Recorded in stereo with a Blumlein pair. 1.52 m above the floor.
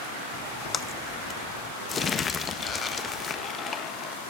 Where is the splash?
20° left, 0.7 m.